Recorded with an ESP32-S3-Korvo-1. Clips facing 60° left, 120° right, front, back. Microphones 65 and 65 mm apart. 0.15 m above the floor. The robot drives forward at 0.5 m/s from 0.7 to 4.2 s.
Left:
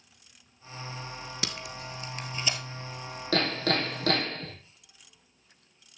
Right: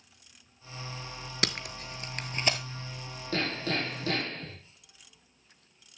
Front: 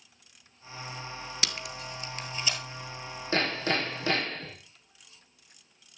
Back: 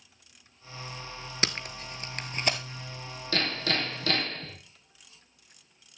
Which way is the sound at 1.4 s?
135° right.